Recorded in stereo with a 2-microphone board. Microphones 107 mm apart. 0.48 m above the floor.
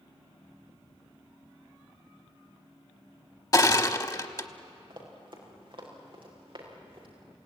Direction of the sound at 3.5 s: 35° left (ahead or behind).